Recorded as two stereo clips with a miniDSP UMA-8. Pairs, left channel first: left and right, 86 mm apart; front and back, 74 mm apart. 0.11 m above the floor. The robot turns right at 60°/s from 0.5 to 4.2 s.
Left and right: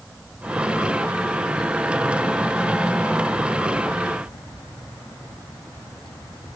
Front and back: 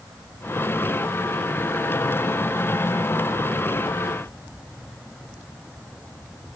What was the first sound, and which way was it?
Only background noise.